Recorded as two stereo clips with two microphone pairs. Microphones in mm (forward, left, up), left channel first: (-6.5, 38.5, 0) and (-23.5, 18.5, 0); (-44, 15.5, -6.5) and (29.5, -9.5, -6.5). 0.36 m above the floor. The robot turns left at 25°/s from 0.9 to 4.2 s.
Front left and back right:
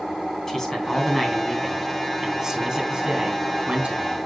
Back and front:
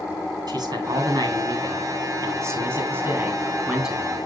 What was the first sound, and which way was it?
A man speaking, 20° right.